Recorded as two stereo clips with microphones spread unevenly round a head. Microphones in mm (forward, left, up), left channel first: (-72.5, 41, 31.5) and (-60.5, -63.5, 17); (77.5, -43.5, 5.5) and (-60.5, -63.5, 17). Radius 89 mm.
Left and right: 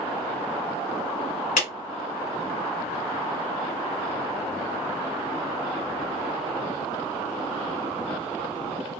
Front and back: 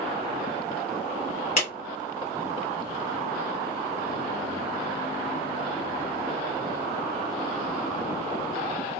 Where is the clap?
60° left, 1.6 m.